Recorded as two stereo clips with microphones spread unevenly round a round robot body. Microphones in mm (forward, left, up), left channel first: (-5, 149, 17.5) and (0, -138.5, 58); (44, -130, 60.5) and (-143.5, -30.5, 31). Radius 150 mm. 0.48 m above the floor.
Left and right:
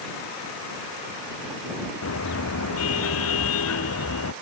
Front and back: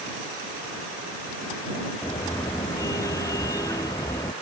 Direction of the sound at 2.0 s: 50° left.